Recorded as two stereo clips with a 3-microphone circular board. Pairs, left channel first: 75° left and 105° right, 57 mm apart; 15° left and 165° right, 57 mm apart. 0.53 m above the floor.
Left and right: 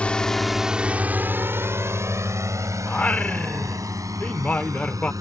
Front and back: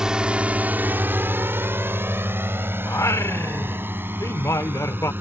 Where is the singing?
15° left.